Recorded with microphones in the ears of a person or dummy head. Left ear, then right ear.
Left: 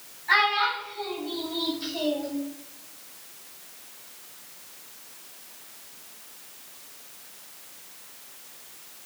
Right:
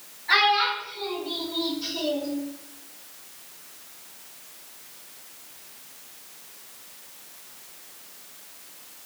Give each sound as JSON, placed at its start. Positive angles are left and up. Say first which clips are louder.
{"t": 0.3, "sound": "a child speaking", "louder": "right 2 dB", "side_deg": 10, "distance_m": 1.9}